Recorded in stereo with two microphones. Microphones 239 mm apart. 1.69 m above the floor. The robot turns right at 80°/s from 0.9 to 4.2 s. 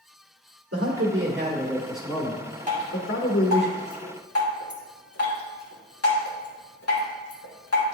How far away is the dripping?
About 2 m.